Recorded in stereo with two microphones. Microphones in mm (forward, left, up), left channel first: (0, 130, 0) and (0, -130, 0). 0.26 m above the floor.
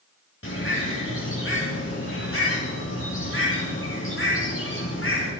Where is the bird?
55° left (ahead or behind), 8.5 m.